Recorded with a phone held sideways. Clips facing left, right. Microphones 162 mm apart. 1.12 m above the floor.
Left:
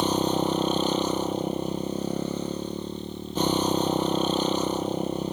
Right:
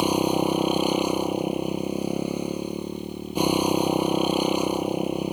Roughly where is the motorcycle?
Centre.